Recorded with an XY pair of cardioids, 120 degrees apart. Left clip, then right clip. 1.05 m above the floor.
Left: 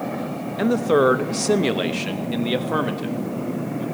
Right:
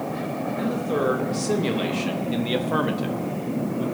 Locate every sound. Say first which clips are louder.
0.6 s a man speaking: left 8 dB; 65° left, 1.2 m; by 3.8 s 10° right, 1.9 m